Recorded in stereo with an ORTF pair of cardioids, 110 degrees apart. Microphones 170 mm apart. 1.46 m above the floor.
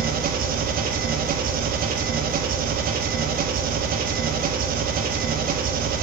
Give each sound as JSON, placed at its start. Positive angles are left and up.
{"t": 0.0, "sound": "an engine running", "azimuth_deg": -55, "distance_m": 1.2}